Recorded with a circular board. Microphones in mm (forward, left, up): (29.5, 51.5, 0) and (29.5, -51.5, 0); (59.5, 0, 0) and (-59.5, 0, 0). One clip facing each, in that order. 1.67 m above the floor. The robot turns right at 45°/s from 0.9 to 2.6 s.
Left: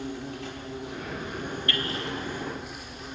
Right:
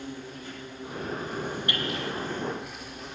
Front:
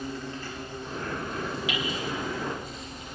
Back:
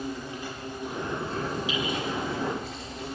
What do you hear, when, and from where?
0.0 s an insect: 105° left, 6.5 m; by 3.1 s straight behind, 6.5 m
1.7 s hammering: 20° right, 3.5 m; by 1.9 s 10° right, 3.5 m